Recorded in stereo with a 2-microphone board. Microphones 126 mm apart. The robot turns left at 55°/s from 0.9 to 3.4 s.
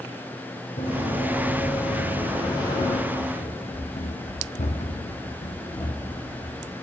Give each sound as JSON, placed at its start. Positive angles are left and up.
{"t": 0.8, "sound": "running footsteps", "side_deg": 75, "distance_m": 3.0}
{"t": 3.1, "sound": "running footsteps", "side_deg": 30, "distance_m": 1.1}